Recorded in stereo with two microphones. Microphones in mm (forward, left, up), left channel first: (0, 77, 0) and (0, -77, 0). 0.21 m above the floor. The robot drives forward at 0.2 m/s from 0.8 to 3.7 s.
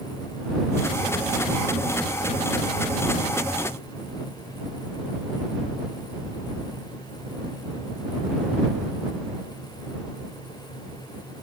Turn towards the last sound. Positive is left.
No sound to turn to.